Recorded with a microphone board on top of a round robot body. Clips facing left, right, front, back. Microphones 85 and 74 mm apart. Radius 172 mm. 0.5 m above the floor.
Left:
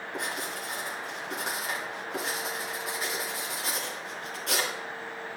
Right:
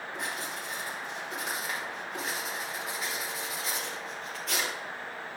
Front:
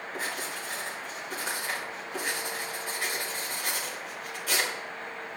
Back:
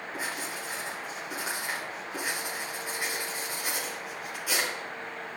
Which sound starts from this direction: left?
Writing, at 0.1 s.